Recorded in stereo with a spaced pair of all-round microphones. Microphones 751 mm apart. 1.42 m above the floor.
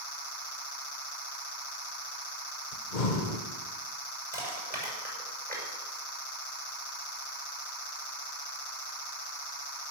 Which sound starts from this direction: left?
Breathing, at 2.7 s.